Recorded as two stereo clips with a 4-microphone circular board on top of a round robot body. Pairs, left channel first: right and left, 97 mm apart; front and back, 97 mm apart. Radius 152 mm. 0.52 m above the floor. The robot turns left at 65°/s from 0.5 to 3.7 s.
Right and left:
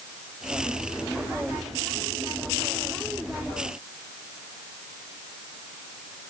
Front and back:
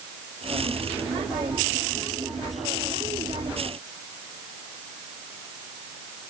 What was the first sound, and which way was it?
Only background noise.